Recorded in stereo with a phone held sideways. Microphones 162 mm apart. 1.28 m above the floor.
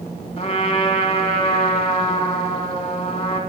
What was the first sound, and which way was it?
A trumpet, 35° left (ahead or behind).